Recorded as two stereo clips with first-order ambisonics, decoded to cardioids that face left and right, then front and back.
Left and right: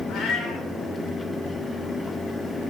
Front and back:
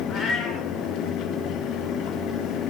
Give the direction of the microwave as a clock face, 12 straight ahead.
No microwave in this recording.